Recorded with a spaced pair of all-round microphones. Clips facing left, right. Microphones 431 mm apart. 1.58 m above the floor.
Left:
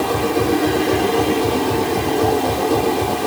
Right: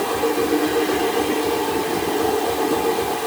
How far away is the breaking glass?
I don't hear breaking glass.